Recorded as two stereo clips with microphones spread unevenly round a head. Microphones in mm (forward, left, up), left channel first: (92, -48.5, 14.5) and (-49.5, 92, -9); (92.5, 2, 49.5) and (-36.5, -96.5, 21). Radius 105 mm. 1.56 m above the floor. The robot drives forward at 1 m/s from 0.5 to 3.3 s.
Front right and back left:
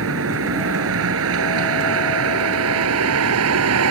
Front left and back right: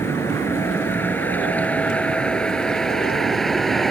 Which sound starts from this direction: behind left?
A vehicle, at 0.0 s.